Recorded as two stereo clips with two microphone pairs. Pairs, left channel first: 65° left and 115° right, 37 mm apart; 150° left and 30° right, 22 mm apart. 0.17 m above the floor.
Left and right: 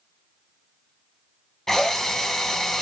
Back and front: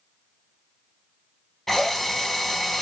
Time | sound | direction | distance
1.7 | a drill | 115° left | 1.4 m